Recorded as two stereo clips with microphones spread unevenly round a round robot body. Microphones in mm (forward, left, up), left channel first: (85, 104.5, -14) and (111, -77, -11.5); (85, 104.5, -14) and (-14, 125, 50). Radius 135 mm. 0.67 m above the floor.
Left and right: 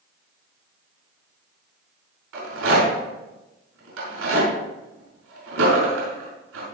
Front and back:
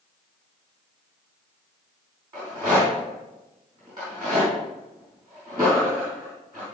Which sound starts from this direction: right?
A rattle, at 2.3 s.